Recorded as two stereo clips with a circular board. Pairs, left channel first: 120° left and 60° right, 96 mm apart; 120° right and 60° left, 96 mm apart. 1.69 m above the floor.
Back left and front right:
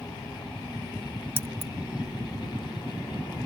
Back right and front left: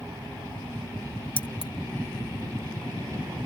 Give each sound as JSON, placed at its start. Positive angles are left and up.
{"t": 1.4, "sound": "keys jangling", "azimuth_deg": -125}